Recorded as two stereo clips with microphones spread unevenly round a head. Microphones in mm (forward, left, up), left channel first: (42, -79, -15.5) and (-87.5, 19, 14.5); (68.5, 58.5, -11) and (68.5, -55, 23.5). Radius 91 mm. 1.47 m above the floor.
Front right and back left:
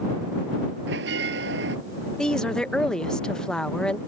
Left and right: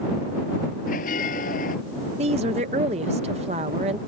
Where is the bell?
115° left.